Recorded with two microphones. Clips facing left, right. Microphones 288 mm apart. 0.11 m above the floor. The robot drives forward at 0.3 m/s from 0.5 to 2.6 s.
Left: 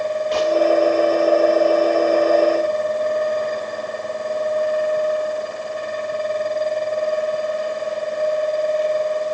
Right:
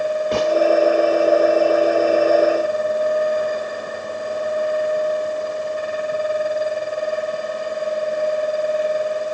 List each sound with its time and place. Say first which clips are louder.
0.3 s a gunshot: even; 60° right (ahead or behind), 1.6 m